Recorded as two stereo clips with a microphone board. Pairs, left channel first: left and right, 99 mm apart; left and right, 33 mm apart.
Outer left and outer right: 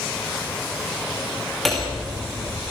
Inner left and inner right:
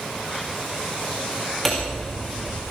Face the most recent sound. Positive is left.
turn(degrees=0)  # may be behind; listen again after turning